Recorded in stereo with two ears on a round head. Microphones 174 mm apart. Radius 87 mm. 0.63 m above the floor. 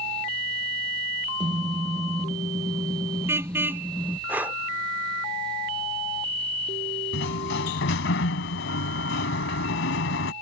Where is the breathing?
10° right (ahead or behind).